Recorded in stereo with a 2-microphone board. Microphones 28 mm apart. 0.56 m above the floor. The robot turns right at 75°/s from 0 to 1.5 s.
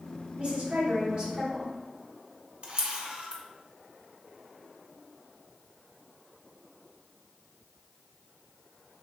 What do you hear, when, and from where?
0.4 s a woman speaking: 115° right, 1.0 m; by 1.7 s 30° right, 1.0 m
2.6 s a camera shutter: 35° right (ahead or behind), 0.6 m